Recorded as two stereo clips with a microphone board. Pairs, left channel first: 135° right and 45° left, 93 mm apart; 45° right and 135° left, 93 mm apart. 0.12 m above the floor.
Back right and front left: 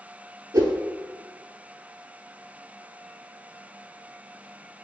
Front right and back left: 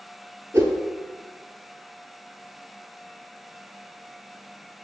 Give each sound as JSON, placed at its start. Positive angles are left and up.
{"t": 0.5, "sound": "a whoosh", "azimuth_deg": 85, "distance_m": 0.5}